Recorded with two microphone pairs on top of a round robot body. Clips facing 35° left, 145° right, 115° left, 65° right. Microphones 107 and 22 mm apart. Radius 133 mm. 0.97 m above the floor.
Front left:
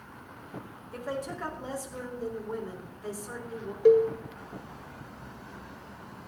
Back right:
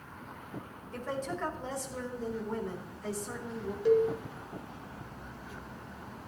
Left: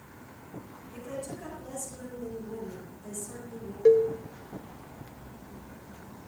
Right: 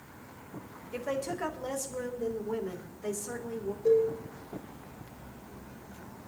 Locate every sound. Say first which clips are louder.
0.9 s a woman speaking: front left 1 dB, right 5 dB; 45° right, 3.5 m
3.9 s a cowbell: front left 5 dB, left 4 dB; 75° left, 1.1 m